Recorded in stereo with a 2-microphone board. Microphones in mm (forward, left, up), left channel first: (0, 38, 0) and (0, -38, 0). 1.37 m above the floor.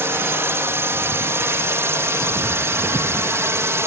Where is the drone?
35° right (ahead or behind).